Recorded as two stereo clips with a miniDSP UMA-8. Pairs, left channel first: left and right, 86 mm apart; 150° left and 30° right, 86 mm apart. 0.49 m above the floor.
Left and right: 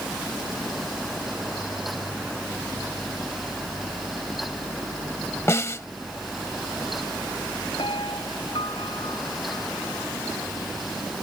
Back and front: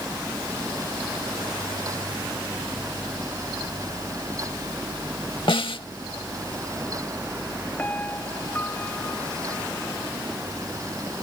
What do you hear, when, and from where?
5.5 s a snare drum: 145° left
7.8 s a piano: 80° left